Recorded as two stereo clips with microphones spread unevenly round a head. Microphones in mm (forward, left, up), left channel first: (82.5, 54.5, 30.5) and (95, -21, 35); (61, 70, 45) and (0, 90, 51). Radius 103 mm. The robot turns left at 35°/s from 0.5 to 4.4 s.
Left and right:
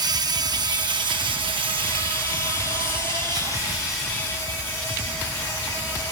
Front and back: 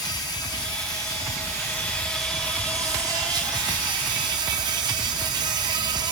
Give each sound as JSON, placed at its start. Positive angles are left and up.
{"t": 0.0, "sound": "an insect", "azimuth_deg": -50, "distance_m": 0.9}